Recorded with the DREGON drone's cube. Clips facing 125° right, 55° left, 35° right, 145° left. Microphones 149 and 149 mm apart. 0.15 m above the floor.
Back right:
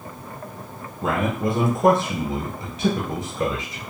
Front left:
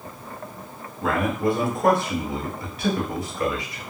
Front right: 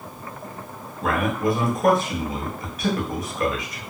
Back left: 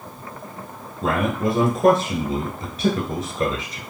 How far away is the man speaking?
About 1.2 m.